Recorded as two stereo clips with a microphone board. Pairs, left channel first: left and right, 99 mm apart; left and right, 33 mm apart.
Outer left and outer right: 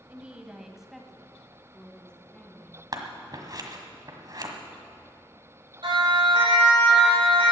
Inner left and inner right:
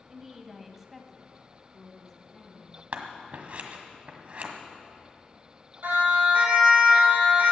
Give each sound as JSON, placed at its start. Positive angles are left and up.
{"t": 0.1, "sound": "a woman speaking", "side_deg": -15, "distance_m": 1.1}
{"t": 2.9, "sound": "scissors", "side_deg": -45, "distance_m": 1.5}
{"t": 5.8, "sound": "a siren", "side_deg": -60, "distance_m": 5.5}